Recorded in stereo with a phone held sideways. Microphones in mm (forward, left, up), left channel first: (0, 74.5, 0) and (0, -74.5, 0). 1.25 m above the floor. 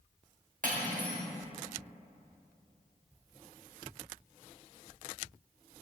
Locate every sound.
0.6 s cutlery clinking: 65° right (ahead or behind), 1.2 m